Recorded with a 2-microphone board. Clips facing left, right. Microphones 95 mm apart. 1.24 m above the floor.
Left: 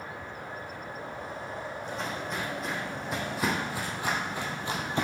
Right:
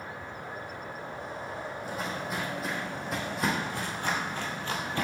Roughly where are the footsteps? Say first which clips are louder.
Right 1 dB; centre.